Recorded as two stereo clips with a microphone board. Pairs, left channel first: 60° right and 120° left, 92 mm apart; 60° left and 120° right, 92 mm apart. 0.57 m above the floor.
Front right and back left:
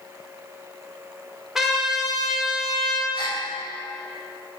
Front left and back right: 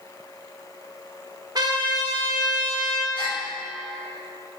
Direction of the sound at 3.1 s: 90° right.